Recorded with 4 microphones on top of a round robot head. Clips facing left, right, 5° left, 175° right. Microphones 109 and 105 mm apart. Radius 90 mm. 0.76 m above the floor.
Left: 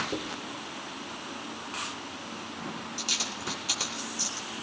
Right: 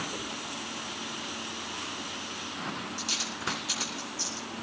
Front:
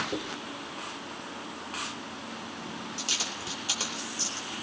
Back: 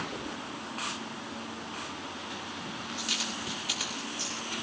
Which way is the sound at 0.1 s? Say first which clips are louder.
Left 3 dB, front 3 dB; 65° left.